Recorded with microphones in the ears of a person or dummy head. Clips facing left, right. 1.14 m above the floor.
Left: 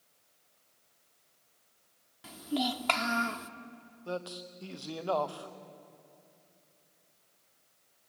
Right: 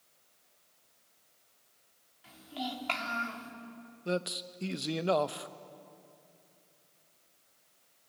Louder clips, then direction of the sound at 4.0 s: Right 4 dB; 25° right (ahead or behind).